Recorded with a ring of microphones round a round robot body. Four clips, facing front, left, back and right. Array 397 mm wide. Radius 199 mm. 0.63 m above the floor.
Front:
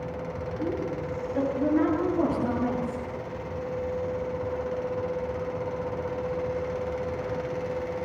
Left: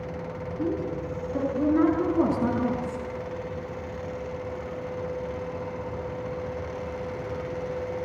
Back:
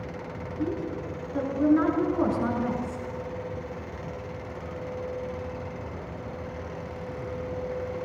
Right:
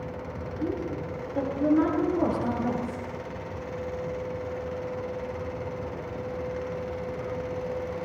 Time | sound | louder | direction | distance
0.6 | a woman speaking | left 2 dB, back 1 dB | 105° left | 7.5 m